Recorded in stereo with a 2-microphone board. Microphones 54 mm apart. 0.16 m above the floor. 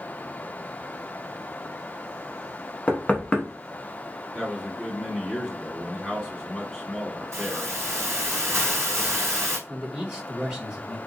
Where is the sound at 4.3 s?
Centre (ahead or behind), 1.1 m.